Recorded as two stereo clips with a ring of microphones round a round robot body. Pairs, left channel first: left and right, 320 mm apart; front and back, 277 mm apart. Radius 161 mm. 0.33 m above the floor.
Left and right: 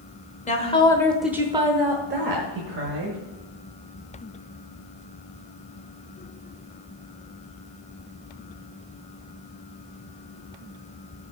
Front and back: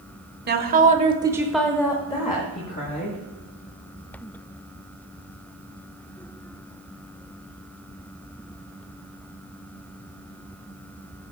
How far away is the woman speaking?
About 1.3 m.